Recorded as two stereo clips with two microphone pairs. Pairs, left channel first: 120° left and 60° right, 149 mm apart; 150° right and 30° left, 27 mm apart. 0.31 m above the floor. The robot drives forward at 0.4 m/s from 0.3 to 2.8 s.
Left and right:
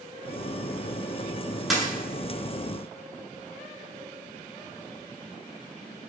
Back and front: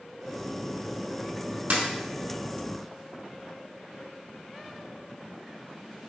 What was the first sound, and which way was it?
A dropped coin, 30° left.